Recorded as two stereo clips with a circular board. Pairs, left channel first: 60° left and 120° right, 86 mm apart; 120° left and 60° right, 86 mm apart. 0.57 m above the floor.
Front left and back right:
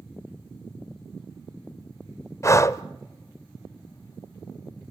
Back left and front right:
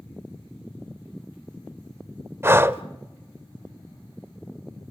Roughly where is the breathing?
Ahead.